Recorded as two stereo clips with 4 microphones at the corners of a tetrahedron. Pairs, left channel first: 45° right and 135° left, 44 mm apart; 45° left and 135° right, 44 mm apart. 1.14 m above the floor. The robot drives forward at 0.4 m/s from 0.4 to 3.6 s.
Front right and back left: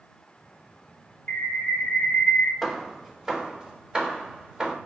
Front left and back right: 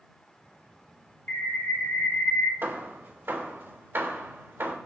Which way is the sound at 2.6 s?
140° right.